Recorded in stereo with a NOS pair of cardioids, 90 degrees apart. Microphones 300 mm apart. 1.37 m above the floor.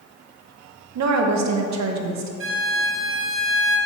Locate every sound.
0.9 s a woman speaking: 60° right, 1.5 m
2.4 s a violin: 45° right, 1.4 m